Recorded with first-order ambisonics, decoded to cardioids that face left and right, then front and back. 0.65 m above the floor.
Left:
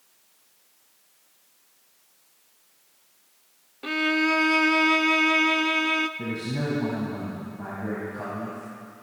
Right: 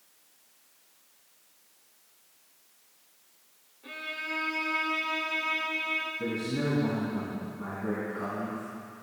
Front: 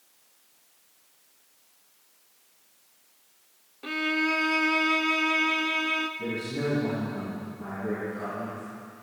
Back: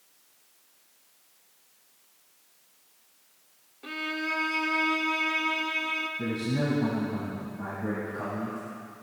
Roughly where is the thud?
No thud in this recording.